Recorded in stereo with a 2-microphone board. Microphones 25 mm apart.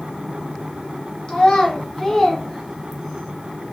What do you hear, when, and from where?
1.3 s a child speaking: 40° left (ahead or behind), 1.2 m; by 3.3 s 15° right (ahead or behind), 1.1 m